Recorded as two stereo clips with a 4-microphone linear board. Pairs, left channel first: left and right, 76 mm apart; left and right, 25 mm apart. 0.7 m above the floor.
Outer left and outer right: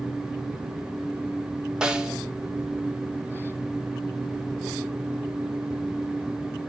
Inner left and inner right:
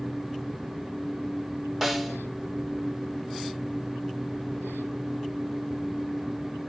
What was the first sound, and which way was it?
A snare drum, 10° right (ahead or behind).